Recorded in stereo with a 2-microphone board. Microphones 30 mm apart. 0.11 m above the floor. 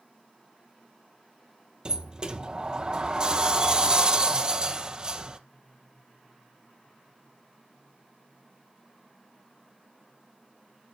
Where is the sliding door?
25° right (ahead or behind), 0.6 m.